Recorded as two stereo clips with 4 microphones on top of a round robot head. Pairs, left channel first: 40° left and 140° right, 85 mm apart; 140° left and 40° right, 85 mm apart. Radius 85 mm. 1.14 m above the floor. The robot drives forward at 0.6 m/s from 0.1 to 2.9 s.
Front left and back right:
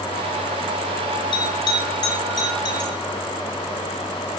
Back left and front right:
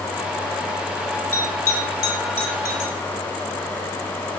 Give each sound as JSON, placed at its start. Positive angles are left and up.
{"t": 1.3, "sound": "a bell", "azimuth_deg": 80, "distance_m": 7.0}